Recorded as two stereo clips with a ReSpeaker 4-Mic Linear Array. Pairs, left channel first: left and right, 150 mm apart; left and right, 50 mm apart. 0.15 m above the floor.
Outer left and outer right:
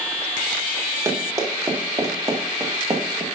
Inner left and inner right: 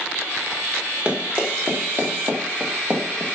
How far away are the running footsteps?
About 4 m.